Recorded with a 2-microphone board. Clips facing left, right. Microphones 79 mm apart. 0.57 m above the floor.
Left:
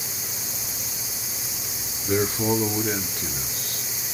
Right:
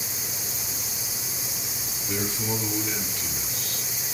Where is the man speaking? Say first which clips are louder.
Left 8 dB; 45° left (ahead or behind), 2.0 m; by 3.8 s 35° left (ahead or behind), 1.7 m.